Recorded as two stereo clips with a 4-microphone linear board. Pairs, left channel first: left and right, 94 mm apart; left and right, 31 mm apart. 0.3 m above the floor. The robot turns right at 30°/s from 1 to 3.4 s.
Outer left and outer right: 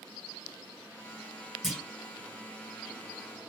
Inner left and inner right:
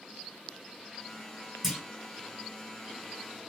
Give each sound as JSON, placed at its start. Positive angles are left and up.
{"t": 1.6, "sound": "a clunk", "side_deg": -5, "distance_m": 1.7}